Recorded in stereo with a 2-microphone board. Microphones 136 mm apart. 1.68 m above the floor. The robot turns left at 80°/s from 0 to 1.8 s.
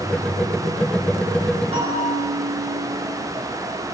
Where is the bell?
50° right (ahead or behind), 3 m; by 3.1 s 55° right (ahead or behind), 3 m.